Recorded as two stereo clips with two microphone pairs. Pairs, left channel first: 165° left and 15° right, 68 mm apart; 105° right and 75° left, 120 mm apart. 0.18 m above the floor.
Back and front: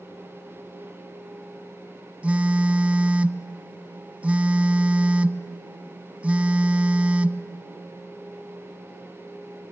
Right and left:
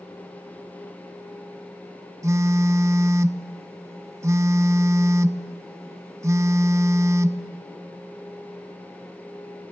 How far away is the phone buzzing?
About 0.6 m.